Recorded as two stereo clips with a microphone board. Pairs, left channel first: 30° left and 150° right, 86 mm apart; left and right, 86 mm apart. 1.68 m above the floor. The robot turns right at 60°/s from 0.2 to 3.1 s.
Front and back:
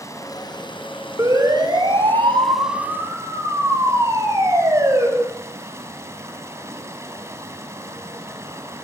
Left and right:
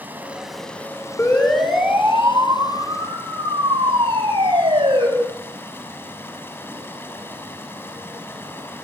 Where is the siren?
155° left, 7.5 m; by 5.1 s 100° right, 10.5 m.